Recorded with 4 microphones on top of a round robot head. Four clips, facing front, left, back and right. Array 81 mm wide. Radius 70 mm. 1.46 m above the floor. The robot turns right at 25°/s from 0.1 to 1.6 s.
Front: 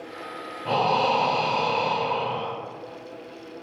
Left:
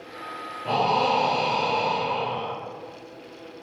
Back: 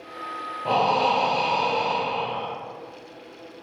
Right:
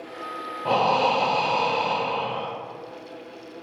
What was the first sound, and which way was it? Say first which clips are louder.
Breathing: right 1 dB, back 1 dB; 115° right.